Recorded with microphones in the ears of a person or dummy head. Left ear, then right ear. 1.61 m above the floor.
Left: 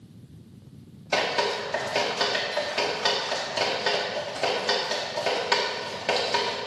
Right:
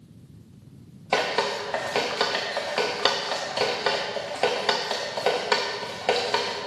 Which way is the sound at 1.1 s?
25° right (ahead or behind).